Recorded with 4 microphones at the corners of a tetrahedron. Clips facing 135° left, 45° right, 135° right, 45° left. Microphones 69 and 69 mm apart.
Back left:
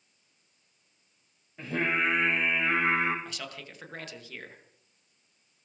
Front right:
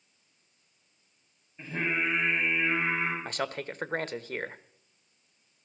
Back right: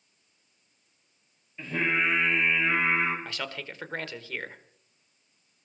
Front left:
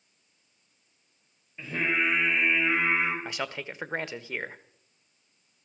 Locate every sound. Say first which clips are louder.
1.6 s singing: back left 2 dB, back right 1 dB; 125° left, 5.5 m
3.2 s a man speaking: front right 8 dB, front left 2 dB; 20° right, 1.1 m